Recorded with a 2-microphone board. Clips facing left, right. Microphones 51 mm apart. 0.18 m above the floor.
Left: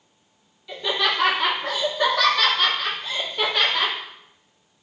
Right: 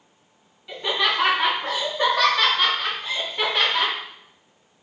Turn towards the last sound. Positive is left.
turn(degrees=-15)  # may be behind; listen again after turning